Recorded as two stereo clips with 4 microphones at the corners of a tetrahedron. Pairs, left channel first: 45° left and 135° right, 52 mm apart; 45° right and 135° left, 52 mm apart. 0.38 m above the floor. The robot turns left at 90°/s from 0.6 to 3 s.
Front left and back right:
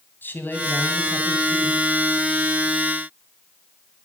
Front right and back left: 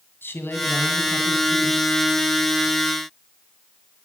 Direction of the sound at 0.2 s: 5° right.